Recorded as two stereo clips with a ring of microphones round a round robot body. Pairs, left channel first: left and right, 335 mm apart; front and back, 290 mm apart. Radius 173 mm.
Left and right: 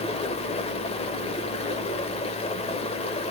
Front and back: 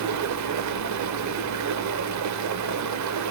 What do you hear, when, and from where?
0.0 s running water: 160° left, 1.0 m